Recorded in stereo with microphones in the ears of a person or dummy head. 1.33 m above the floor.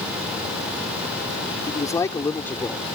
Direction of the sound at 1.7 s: 25° left (ahead or behind).